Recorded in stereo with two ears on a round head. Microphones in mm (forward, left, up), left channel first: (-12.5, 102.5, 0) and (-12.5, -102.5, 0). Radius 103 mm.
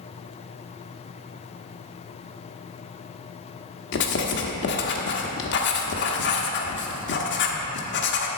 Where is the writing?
50° left (ahead or behind), 1.0 m.